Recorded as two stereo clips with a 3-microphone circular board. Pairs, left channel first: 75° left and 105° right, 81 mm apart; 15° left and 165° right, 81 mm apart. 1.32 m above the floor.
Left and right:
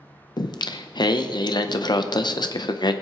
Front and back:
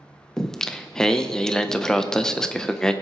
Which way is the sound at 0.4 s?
95° left.